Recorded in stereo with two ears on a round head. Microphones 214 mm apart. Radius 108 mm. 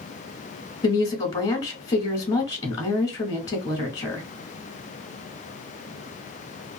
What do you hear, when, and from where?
0.8 s a woman speaking: 25° left (ahead or behind), 0.9 m